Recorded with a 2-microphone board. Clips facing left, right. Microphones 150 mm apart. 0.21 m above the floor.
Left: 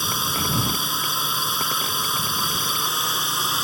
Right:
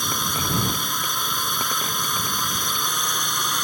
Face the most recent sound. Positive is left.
turn(degrees=5)  # may be behind; listen again after turning